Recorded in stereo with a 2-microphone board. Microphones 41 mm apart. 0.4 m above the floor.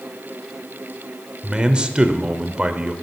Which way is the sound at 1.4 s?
25° right (ahead or behind).